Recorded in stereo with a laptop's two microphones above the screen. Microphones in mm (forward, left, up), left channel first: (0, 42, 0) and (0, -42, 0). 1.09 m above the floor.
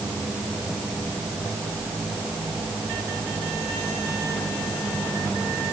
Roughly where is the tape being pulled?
No tape being pulled in this recording.